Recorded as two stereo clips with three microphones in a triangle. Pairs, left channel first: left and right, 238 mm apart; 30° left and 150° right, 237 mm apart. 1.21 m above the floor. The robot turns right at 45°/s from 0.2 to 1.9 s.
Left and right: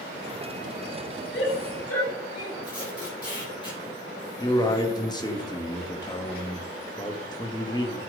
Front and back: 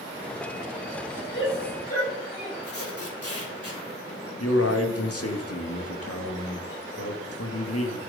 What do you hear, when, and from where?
1.3 s a shout: 60° left, 7 m; by 2.5 s 85° left, 7 m
2.6 s tape being pulled: 20° left, 6.5 m
4.4 s a man speaking: 20° left, 1.8 m